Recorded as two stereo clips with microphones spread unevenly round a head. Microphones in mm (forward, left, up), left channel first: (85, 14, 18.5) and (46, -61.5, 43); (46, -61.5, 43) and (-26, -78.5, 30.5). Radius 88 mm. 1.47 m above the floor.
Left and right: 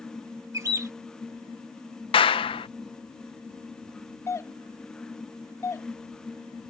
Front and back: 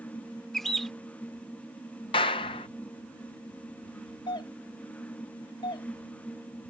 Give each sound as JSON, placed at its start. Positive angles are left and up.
{"t": 0.5, "sound": "a bird", "azimuth_deg": -70}
{"t": 2.1, "sound": "a clap", "azimuth_deg": 45}
{"t": 4.3, "sound": "a doorbell", "azimuth_deg": 5}